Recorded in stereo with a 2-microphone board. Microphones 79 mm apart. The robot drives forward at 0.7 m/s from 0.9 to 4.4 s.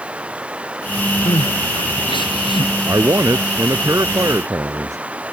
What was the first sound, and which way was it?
Running water, 15° right (ahead or behind).